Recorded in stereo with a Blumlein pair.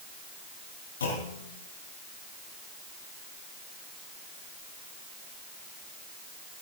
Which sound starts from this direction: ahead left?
A clunk, at 1.0 s.